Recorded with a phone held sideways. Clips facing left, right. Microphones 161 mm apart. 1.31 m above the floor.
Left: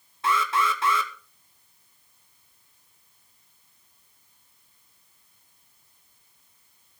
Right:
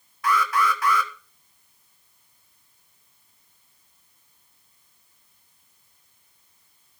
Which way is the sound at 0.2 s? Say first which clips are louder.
Right 2 dB; 25° left (ahead or behind).